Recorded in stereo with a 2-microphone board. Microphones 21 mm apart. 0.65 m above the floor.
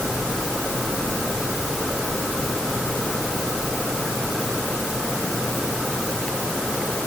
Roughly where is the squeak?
No squeak in this recording.